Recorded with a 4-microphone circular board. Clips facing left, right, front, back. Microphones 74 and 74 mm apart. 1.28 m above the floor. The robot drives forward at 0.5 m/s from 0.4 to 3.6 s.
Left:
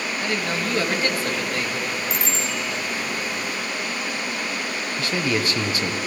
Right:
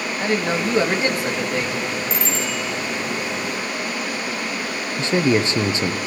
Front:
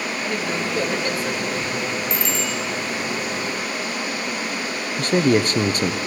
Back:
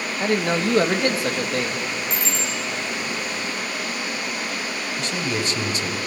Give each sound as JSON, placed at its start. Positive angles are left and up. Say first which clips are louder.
{"t": 0.2, "sound": "a man speaking", "louder": "right 6 dB, back 7 dB", "azimuth_deg": -155, "distance_m": 1.8}
{"t": 2.1, "sound": "a bicycle bell", "louder": "right 2 dB, front 2 dB", "azimuth_deg": 115, "distance_m": 4.5}
{"t": 5.0, "sound": "a man speaking", "louder": "right 6 dB, front 10 dB", "azimuth_deg": -30, "distance_m": 0.9}